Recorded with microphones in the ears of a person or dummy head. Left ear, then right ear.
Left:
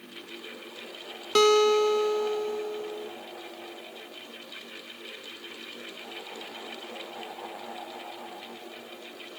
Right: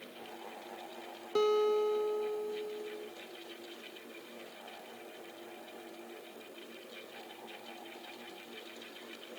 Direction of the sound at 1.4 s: 50° left (ahead or behind).